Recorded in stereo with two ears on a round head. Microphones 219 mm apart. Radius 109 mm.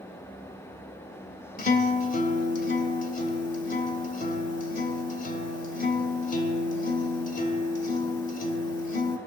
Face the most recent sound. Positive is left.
turn(degrees=35)  # may be behind; listen again after turning